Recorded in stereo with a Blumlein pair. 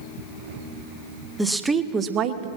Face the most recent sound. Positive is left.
turn(degrees=-45)